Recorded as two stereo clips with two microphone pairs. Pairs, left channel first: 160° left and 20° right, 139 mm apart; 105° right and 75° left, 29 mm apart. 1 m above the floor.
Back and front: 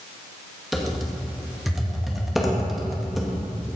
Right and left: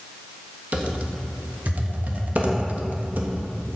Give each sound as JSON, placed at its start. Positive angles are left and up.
{"t": 0.7, "sound": "typing on a keyboard", "azimuth_deg": 70, "distance_m": 1.4}